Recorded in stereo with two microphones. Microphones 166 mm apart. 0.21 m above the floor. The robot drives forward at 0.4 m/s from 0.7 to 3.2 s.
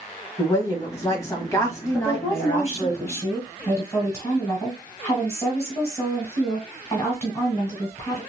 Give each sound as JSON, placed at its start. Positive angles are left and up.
{"t": 0.4, "sound": "a woman speaking", "side_deg": 20, "distance_m": 1.5}
{"t": 1.9, "sound": "a woman speaking", "side_deg": 20, "distance_m": 1.6}